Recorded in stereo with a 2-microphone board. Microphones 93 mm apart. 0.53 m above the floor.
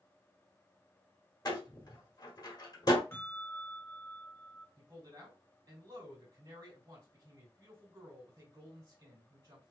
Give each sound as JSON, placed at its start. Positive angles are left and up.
{"t": 1.4, "sound": "a door slam", "side_deg": 45, "distance_m": 1.4}
{"t": 3.1, "sound": "a bell", "side_deg": 20, "distance_m": 2.0}
{"t": 4.8, "sound": "a man speaking", "side_deg": -45, "distance_m": 2.0}